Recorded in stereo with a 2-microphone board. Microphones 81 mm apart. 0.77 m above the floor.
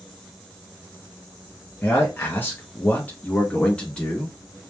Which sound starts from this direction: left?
A man speaking, at 1.8 s.